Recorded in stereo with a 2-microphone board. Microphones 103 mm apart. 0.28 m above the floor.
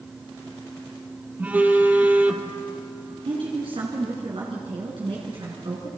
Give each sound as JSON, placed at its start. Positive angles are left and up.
{"t": 1.4, "sound": "a phone buzzing", "side_deg": -15, "distance_m": 1.7}
{"t": 3.2, "sound": "a woman speaking", "side_deg": -60, "distance_m": 2.5}